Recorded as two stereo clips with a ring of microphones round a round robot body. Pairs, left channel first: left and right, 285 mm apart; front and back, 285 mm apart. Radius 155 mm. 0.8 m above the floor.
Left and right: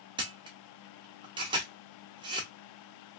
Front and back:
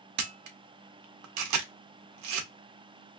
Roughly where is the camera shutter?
Behind.